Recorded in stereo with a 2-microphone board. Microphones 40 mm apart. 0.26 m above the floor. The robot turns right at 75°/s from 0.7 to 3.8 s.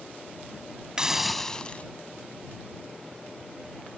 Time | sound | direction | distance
1.0 | a hiss | 25° right | ?